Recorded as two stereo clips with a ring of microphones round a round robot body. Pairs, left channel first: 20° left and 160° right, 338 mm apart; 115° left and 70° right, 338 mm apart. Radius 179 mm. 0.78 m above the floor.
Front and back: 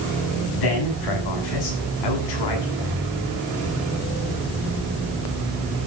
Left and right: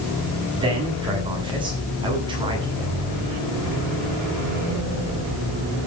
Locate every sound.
0.6 s a man speaking: 10° left, 8 m